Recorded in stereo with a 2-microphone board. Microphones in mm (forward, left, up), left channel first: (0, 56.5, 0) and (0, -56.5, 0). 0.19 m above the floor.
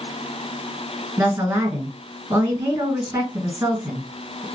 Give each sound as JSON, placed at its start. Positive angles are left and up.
{"t": 1.2, "sound": "a woman speaking", "side_deg": -30, "distance_m": 1.7}